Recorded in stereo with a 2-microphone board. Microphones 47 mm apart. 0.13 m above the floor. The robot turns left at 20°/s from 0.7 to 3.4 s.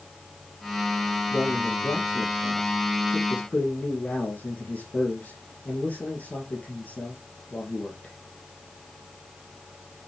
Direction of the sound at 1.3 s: 80° left.